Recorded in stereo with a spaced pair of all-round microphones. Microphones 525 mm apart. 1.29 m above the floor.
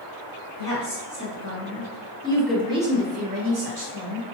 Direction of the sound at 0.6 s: 45° left (ahead or behind).